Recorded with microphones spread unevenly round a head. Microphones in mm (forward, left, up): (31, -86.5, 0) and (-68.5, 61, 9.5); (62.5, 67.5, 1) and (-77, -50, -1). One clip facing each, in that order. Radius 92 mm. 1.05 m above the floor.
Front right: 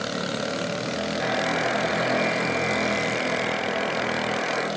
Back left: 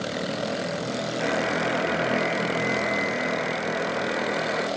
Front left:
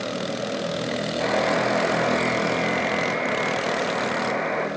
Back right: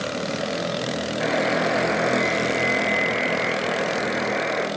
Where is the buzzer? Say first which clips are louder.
Back left 1 dB, even; 155° left, 5 m.